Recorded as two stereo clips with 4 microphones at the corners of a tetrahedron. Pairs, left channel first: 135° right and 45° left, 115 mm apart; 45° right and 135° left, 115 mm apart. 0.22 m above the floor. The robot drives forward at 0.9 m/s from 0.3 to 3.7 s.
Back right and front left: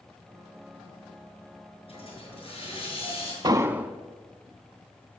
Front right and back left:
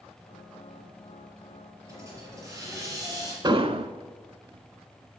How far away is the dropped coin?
No dropped coin in this recording.